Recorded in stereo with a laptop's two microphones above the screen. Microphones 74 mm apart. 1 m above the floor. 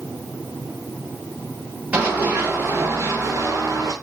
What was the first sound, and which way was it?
Running footsteps, 20° right (ahead or behind).